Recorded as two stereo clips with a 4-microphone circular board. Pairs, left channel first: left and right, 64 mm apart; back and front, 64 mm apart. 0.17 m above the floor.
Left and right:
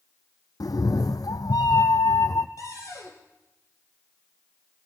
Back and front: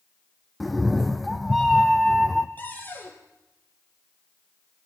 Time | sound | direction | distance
0.6 | a cat meowing | 90° left | 0.6 m
2.6 | a cupboard door | 120° left | 2.5 m